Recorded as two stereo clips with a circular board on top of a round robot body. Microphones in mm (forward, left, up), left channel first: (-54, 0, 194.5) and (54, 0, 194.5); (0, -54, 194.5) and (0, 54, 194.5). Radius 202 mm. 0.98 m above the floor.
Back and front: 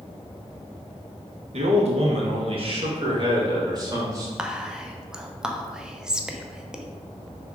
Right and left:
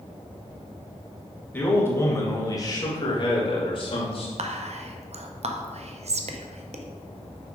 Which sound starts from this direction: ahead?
A man speaking, at 1.5 s.